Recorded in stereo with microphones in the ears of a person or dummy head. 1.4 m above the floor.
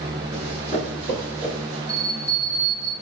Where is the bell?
10° left (ahead or behind), 1.2 m.